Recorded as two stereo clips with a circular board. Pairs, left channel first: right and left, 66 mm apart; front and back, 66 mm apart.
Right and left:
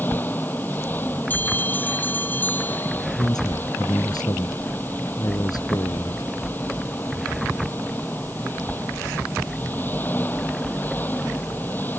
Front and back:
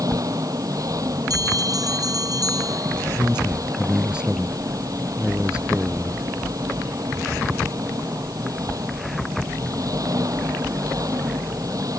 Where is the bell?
155° right.